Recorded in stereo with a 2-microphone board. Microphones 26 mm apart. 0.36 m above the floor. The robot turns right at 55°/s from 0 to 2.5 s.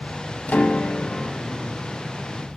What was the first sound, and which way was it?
A piano, 100° left.